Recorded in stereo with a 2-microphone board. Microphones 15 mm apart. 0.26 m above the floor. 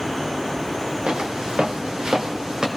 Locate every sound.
1.1 s footsteps: 80° right, 1.8 m; by 2.7 s 45° right (ahead or behind), 2 m